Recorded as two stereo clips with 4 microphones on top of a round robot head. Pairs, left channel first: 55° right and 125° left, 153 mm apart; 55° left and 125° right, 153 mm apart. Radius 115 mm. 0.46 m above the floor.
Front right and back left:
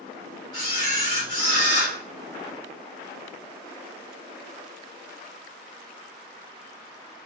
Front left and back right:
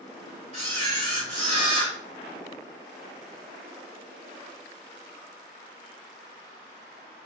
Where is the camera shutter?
105° right, 1.8 m.